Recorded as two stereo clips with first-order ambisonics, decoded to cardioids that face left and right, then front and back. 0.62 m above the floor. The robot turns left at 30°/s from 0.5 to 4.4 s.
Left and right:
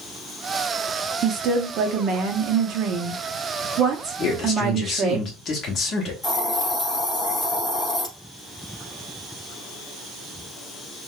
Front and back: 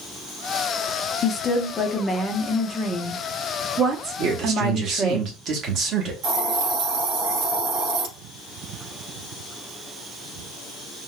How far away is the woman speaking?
About 0.7 m.